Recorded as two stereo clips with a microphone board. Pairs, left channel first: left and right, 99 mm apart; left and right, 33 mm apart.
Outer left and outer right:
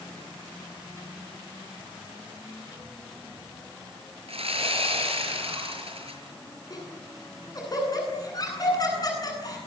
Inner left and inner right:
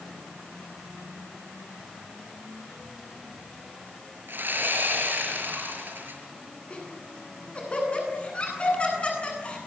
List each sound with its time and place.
4.3 s sawing: 85° right, 6.5 m
6.7 s laughter: 40° left (ahead or behind), 10 m